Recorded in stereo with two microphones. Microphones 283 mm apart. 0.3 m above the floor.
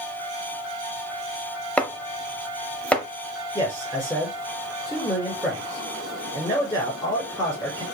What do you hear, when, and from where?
1.8 s chopping: 5° left (ahead or behind), 0.7 m
3.5 s a man speaking: 10° left (ahead or behind), 3.5 m